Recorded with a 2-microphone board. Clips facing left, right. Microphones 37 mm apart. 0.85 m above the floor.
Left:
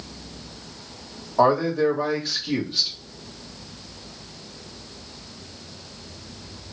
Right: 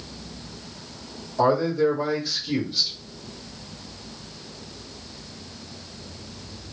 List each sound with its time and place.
1.4 s a man speaking: 45° left (ahead or behind), 1.7 m